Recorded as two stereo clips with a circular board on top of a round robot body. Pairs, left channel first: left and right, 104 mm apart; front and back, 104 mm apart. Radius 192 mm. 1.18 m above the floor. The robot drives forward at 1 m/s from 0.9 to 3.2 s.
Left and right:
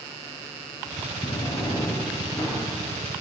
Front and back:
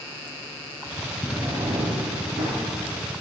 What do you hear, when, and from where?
1.2 s a drawer: 80° left, 0.6 m; by 2.5 s 160° left, 1.4 m